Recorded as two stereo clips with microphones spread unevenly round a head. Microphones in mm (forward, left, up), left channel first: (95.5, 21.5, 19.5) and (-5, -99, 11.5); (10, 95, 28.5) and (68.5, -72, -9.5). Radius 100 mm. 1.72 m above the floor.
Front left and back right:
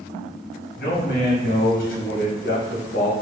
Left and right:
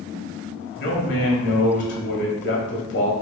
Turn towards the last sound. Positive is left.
turn(degrees=100)